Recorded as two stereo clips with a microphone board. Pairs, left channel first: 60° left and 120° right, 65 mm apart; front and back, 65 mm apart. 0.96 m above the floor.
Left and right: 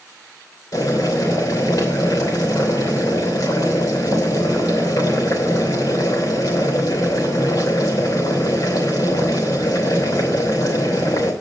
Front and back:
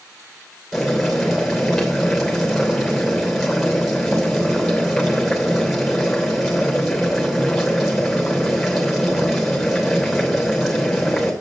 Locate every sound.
0.7 s boiling: 90° left, 3 m